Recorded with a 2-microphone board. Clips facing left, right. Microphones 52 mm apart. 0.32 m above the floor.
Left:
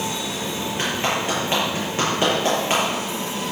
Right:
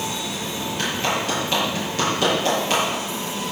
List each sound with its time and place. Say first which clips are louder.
0.8 s a clap: even; 30° left (ahead or behind), 6.5 m